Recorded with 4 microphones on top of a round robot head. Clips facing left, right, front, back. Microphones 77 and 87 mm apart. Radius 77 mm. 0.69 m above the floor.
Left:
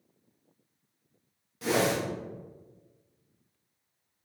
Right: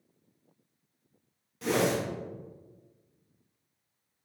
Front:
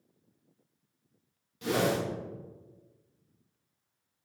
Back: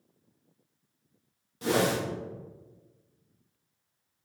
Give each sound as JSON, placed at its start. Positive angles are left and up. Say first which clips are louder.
{"t": 1.6, "sound": "a whoosh", "louder": "even, back 2 dB", "azimuth_deg": 175, "distance_m": 1.1}